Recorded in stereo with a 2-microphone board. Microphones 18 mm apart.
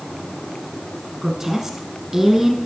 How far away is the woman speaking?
About 1.2 m.